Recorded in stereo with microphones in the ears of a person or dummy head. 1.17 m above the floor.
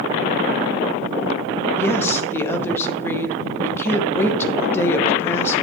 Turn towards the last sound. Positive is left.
turn(degrees=15)  # may be behind; listen again after turning